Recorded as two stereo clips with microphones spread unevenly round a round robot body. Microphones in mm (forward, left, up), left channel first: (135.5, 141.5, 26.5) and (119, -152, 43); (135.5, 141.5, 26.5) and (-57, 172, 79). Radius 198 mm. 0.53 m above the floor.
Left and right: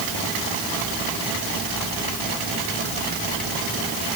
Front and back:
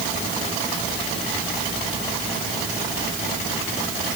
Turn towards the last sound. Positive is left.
No sound to turn to.